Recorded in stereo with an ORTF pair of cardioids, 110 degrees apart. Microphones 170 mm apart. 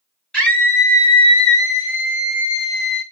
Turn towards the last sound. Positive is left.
turn(degrees=75)